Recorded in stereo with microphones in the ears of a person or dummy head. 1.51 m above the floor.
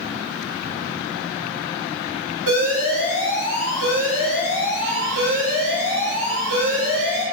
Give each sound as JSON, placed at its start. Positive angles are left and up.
{"t": 2.5, "sound": "an alarm", "side_deg": -70, "distance_m": 1.8}